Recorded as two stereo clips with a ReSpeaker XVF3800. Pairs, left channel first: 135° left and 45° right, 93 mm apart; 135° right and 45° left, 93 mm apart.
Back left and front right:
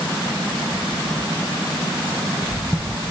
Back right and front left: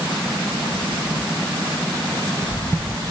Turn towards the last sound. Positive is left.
No sound to turn to.